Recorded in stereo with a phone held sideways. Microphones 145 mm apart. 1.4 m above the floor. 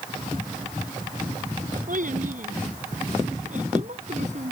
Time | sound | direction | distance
1.9 | a child speaking | 65° right (ahead or behind) | ?